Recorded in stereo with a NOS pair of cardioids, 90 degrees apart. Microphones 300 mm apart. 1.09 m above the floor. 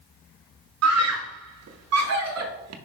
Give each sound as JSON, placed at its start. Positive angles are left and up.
{"t": 0.8, "sound": "a scream", "azimuth_deg": -65, "distance_m": 1.1}